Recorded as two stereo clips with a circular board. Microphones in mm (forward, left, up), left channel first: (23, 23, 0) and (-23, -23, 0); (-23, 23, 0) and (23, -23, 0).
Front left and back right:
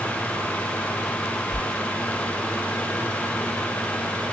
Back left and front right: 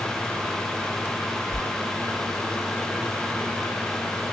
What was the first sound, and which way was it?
A sliding door, 160° left.